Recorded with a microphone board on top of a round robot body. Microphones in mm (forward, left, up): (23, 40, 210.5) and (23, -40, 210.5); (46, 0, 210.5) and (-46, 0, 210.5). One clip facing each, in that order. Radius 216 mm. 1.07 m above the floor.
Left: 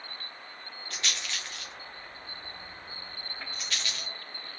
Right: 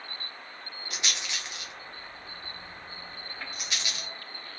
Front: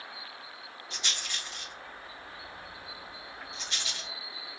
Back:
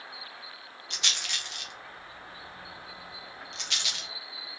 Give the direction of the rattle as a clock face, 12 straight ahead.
5 o'clock.